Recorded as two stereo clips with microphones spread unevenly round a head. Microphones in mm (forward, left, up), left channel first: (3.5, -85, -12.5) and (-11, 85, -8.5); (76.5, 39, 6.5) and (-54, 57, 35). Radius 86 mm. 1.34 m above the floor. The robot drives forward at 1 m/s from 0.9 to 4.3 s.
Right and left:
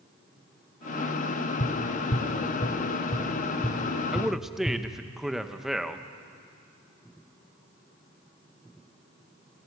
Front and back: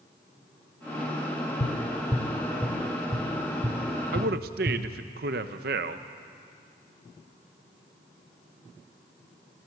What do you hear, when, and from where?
1.6 s tapping: 40° right, 1.1 m; by 4.8 s 170° right, 2.5 m
4.1 s a man speaking: straight behind, 0.8 m